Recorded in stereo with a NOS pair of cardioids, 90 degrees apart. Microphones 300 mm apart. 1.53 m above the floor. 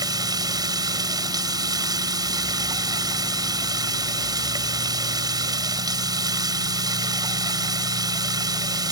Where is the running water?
15° right.